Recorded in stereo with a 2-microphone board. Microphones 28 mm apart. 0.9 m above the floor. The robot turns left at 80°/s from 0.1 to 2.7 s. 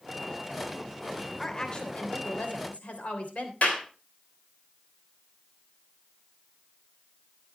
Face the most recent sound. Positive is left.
turn(degrees=70)  # may be behind; listen again after turning